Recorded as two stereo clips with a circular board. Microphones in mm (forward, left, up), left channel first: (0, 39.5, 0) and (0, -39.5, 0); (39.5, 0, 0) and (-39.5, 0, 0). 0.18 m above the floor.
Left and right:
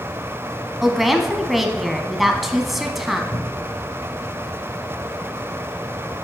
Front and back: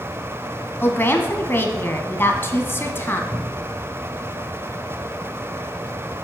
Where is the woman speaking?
5° right, 1.1 m.